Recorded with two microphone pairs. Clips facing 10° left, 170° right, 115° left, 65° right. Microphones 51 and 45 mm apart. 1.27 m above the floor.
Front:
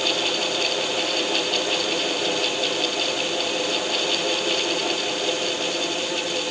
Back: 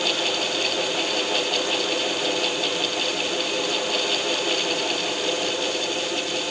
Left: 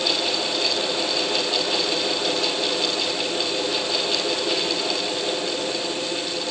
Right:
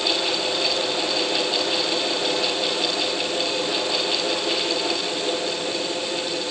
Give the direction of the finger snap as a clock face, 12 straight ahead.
I don't hear a finger snap.